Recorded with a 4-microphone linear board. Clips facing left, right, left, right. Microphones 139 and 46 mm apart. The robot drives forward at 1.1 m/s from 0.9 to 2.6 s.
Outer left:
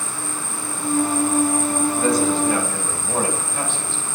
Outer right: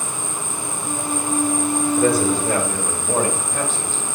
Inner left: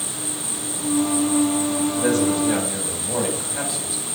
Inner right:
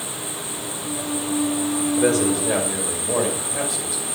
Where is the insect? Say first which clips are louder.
Outer right 1 dB, even; 40° right (ahead or behind), 2.0 m; by 4.2 s 70° right (ahead or behind), 1.3 m.